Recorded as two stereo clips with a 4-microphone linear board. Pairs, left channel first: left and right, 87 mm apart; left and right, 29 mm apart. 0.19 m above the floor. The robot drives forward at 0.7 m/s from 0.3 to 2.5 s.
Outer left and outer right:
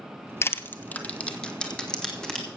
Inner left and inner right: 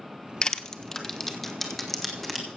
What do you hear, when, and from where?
0.4 s crushing: 30° left (ahead or behind), 0.5 m; by 2.5 s 10° left (ahead or behind), 1.9 m